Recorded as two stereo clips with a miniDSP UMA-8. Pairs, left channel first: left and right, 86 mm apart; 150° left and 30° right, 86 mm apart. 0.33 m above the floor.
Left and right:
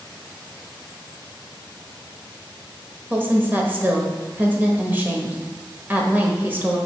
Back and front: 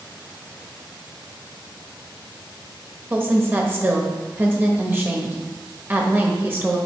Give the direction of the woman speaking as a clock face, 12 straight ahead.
2 o'clock.